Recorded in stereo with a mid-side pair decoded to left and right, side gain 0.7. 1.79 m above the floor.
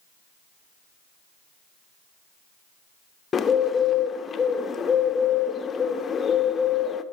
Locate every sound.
3.3 s a bird: 25° left, 0.6 m